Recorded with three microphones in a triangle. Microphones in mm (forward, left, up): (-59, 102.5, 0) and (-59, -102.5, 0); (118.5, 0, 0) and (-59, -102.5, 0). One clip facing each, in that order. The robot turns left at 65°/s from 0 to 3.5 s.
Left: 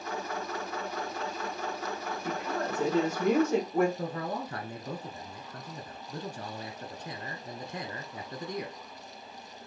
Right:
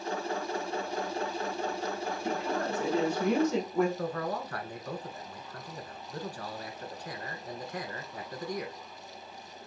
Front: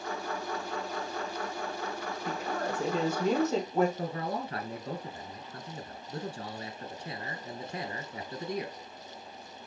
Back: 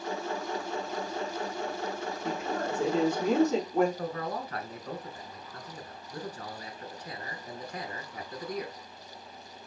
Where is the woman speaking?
165° right, 3.5 m; by 3.9 s 115° left, 3.5 m.